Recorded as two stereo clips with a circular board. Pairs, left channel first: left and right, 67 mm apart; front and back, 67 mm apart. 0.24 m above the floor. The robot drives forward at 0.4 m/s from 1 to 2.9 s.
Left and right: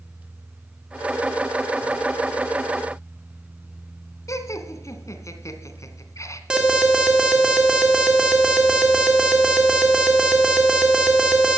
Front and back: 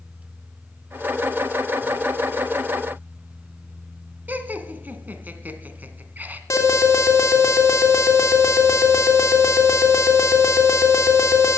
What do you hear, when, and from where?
4.3 s laughter: 120° left, 2 m
6.5 s an alarm: 15° right, 3 m